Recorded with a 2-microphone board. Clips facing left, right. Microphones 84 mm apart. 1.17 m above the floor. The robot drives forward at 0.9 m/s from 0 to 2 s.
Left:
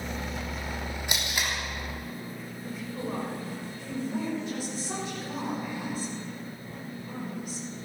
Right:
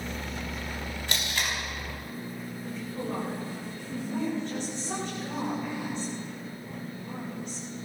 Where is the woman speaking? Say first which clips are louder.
Even; 10° left (ahead or behind), 6 m.